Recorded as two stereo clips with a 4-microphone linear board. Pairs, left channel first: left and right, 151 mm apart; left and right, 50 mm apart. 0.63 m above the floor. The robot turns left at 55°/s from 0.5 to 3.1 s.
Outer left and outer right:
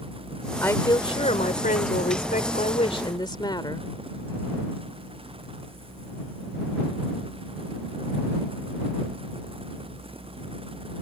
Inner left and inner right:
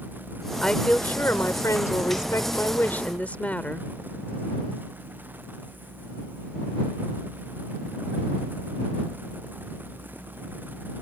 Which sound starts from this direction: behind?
A woman speaking, at 0.6 s.